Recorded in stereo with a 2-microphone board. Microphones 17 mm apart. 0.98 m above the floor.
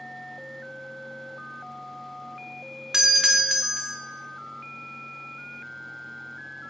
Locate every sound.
2.9 s a doorbell: 35° right (ahead or behind), 1.1 m